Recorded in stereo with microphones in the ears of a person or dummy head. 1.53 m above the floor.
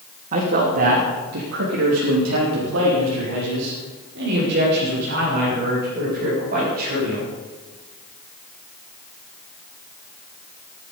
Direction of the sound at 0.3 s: 40° right (ahead or behind).